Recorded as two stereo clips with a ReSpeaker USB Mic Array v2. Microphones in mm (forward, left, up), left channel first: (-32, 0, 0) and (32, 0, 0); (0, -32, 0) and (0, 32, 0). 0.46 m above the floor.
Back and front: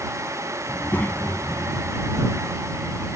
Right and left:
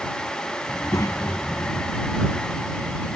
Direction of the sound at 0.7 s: 115° right.